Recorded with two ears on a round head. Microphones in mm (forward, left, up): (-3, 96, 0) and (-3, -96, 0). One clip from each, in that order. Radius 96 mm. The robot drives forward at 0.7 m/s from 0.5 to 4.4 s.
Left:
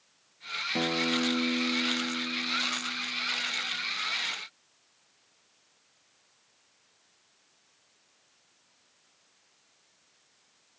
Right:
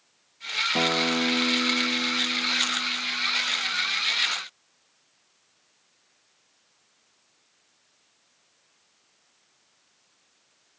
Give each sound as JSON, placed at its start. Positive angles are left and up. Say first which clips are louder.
{"t": 0.8, "sound": "a guitar", "louder": "right 3 dB", "side_deg": -50}